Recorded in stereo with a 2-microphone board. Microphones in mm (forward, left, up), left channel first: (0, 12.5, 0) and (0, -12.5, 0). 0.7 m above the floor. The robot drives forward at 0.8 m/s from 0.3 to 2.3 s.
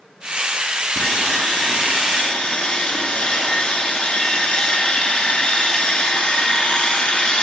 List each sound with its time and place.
1.0 s sawing: 40° left (ahead or behind), 7.5 m; by 7.5 s 35° left (ahead or behind), 8 m